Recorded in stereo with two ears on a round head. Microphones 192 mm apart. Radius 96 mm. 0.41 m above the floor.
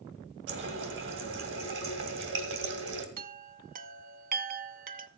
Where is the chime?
40° right (ahead or behind), 0.8 m.